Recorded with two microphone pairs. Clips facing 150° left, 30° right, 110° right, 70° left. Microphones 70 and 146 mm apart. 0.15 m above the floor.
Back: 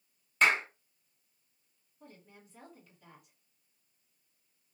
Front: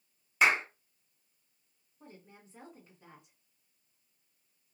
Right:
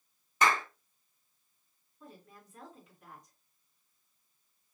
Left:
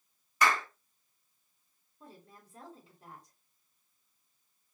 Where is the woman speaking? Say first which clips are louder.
Front 1 dB, right 1 dB; 20° left, 1.8 m.